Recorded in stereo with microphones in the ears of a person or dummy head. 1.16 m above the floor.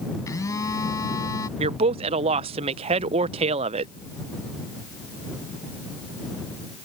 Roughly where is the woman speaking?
Right.